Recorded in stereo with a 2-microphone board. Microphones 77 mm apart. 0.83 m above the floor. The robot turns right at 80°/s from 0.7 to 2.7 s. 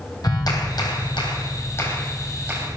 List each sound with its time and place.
0.2 s a clap: 60° left, 3.5 m; by 2.8 s 140° right, 3.5 m